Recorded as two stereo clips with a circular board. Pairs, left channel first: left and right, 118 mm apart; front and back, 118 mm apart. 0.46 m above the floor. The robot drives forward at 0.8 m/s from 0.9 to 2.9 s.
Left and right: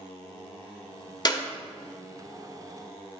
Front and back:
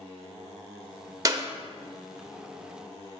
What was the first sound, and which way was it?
A clap, 130° left.